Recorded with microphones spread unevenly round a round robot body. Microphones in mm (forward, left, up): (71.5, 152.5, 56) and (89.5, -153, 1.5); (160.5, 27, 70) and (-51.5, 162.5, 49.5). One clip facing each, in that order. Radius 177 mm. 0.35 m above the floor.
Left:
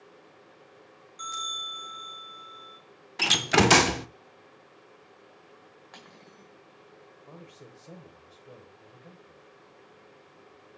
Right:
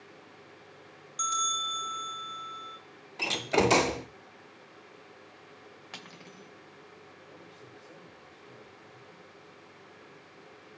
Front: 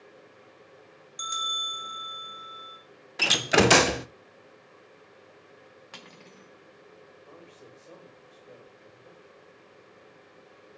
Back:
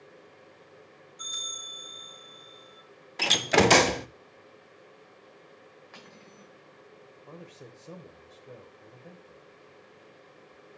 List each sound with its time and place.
1.2 s a bell: 55° right, 4 m
3.2 s a door slam: 50° left, 0.6 m
5.9 s cutlery clinking: 80° right, 1.0 m
7.3 s a man speaking: 120° left, 1.5 m